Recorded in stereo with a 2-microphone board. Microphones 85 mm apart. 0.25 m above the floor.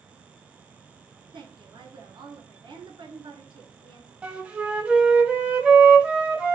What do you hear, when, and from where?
1.3 s a woman speaking: 70° right (ahead or behind), 2.5 m
4.2 s a flute: 15° right (ahead or behind), 1.5 m